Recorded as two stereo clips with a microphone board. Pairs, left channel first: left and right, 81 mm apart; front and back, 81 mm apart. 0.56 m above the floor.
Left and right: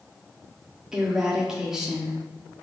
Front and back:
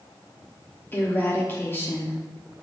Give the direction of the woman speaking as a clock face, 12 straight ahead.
1 o'clock.